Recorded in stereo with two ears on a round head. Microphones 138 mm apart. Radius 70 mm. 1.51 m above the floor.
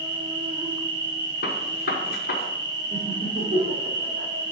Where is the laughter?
70° right (ahead or behind), 4 m.